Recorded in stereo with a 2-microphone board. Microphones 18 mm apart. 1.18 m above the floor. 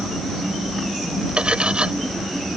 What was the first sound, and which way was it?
Cutlery clinking, 75° right (ahead or behind).